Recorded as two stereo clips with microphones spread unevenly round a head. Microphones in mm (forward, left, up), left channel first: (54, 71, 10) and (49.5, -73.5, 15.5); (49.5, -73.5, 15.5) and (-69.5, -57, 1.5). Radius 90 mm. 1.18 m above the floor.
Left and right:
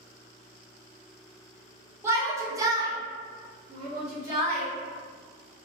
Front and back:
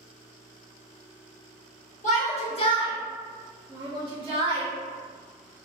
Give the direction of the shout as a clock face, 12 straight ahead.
1 o'clock.